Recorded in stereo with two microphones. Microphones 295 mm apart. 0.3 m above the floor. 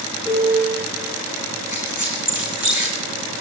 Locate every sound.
0.2 s a piano: 15° left (ahead or behind), 8 m
1.7 s a squeak: 80° left, 6.5 m